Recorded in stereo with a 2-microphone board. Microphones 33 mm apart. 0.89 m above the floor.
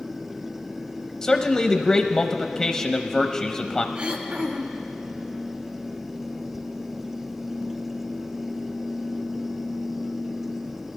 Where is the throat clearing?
45° right (ahead or behind), 1.1 m.